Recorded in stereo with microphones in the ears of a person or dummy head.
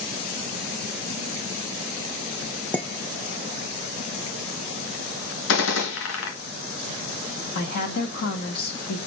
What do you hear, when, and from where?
2.7 s dishes clattering: 5° left (ahead or behind), 0.8 m
5.5 s a gunshot: 70° left (ahead or behind), 1.7 m
7.5 s a woman speaking: 55° left (ahead or behind), 2 m